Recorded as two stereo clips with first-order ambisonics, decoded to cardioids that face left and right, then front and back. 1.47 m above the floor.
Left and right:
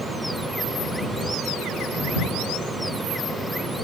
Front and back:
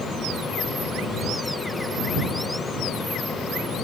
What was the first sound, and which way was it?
Only background noise.